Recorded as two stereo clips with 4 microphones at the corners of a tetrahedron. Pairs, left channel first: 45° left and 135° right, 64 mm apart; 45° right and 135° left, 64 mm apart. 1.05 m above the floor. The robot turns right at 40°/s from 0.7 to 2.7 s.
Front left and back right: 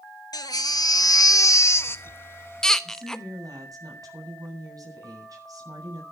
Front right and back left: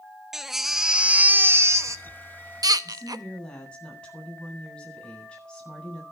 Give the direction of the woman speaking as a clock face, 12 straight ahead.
4 o'clock.